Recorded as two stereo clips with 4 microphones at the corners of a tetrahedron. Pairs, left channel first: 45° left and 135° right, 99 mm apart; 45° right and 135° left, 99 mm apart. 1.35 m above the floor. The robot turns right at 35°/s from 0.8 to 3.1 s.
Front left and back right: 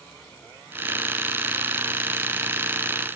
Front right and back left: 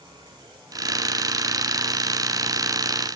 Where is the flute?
I don't hear a flute.